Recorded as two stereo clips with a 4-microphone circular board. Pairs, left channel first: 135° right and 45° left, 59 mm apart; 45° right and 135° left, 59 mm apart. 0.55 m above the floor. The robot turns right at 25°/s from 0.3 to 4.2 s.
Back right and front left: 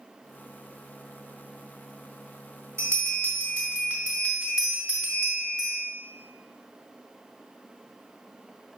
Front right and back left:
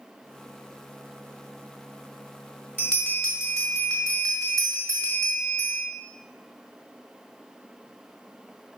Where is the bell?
80° left, 1.8 m; by 5.8 s 115° left, 1.8 m.